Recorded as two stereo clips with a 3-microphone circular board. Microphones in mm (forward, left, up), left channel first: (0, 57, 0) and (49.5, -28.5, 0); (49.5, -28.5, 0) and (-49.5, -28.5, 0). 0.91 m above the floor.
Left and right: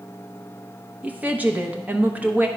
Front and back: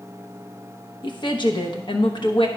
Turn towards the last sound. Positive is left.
turn(degrees=10)